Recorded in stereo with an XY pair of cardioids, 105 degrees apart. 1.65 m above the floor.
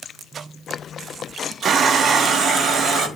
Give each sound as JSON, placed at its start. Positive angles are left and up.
{"t": 1.6, "sound": "a running tap", "azimuth_deg": -60, "distance_m": 3.0}